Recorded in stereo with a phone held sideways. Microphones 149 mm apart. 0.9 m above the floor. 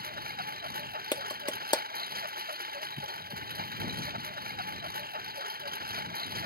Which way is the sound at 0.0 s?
85° right.